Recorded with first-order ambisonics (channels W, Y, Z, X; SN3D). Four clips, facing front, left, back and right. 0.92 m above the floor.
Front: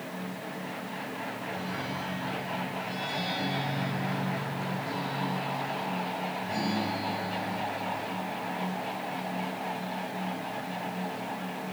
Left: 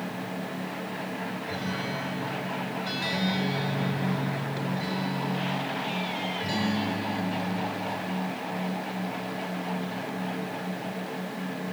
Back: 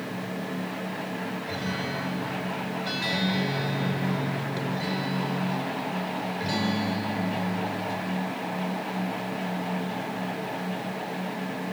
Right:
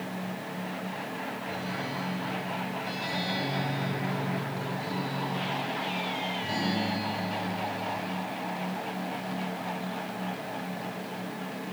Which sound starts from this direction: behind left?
A guitar, at 1.5 s.